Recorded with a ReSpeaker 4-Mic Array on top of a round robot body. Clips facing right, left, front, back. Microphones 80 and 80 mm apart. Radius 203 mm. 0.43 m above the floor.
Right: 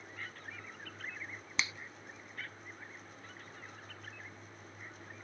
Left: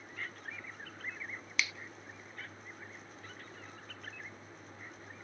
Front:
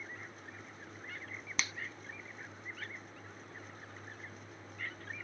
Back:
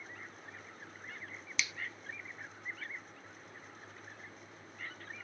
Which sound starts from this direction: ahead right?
A finger snap, at 1.6 s.